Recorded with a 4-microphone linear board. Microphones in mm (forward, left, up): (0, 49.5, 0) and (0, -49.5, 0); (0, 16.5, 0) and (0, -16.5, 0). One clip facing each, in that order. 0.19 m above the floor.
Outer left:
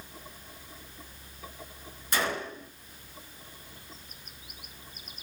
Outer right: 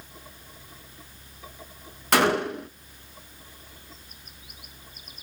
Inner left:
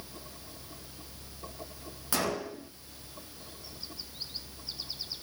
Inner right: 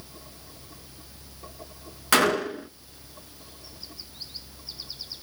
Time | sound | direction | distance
2.1 | a gunshot | 65° right (ahead or behind) | 1.0 m